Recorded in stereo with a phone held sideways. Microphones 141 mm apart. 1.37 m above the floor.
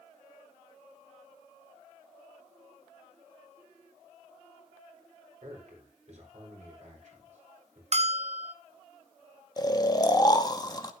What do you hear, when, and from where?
5.4 s a man speaking: 60° right (ahead or behind), 4.5 m
7.9 s a bell: 50° right (ahead or behind), 0.6 m
9.6 s snoring: 30° left (ahead or behind), 0.9 m